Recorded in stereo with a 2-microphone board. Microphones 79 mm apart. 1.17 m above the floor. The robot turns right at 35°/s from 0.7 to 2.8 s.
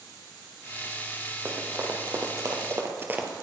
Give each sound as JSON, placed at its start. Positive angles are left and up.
{"t": 1.4, "sound": "running footsteps", "side_deg": -30, "distance_m": 2.5}